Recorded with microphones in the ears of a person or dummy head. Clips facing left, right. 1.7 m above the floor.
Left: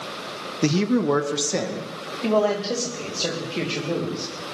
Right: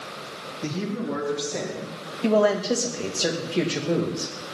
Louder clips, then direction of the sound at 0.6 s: Left 9 dB; 70° left (ahead or behind).